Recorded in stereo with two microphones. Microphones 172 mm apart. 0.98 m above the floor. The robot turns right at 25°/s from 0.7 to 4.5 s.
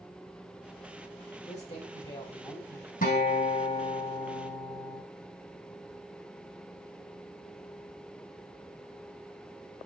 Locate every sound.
1.5 s a woman speaking: 135° left, 5 m; by 2.9 s 170° left, 5 m
3.0 s a guitar: 125° left, 5 m; by 5.0 s 165° left, 5 m